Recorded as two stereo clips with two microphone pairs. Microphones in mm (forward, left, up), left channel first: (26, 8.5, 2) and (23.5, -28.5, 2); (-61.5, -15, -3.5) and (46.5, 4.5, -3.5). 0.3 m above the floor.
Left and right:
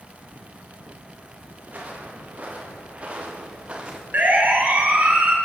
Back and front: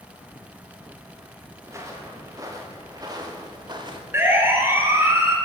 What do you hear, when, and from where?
1.6 s footsteps: 55° right, 8 m; by 4.0 s 35° right, 5.5 m
4.1 s a siren: 60° right, 6.5 m; by 5.4 s 55° right, 5 m